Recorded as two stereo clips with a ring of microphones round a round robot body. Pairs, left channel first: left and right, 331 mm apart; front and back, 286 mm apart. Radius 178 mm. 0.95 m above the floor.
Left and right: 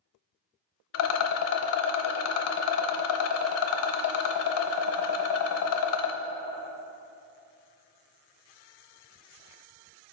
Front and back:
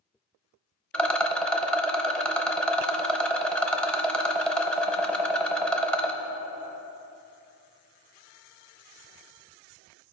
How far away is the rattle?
About 0.7 m.